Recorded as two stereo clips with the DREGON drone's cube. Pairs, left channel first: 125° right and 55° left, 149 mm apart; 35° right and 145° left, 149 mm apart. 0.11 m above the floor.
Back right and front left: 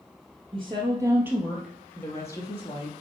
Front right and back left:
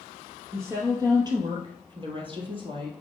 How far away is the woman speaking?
About 1.9 m.